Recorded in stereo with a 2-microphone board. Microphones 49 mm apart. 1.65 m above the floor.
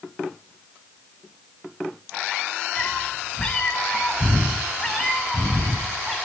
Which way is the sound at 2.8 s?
20° left (ahead or behind).